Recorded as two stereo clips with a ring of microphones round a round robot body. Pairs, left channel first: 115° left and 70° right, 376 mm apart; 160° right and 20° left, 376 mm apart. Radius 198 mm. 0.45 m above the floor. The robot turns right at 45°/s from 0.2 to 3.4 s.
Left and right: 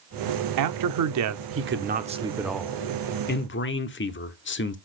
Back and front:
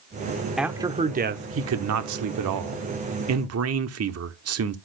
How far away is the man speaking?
About 1.0 m.